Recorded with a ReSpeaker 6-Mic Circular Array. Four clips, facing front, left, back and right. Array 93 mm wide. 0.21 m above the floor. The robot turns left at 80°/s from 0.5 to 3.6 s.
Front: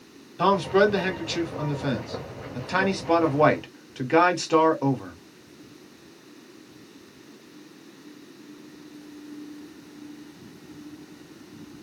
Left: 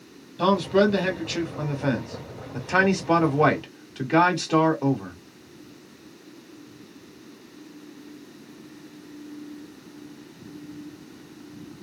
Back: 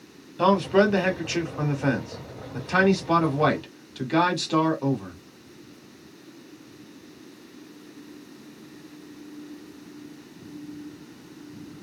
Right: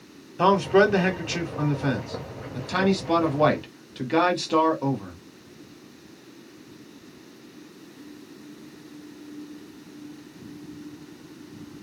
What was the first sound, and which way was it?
A man speaking, 90° right.